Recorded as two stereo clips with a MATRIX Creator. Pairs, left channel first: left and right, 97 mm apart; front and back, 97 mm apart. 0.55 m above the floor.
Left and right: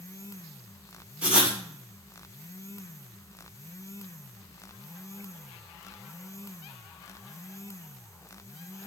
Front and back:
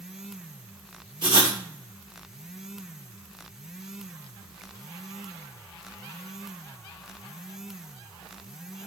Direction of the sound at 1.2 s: 165° right.